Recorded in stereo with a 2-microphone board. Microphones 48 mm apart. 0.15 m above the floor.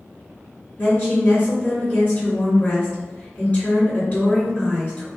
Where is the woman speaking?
35° left (ahead or behind), 1.8 m.